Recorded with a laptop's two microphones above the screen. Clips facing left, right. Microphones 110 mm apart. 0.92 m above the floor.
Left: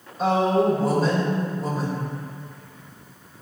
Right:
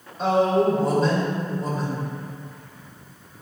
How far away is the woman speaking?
About 4 m.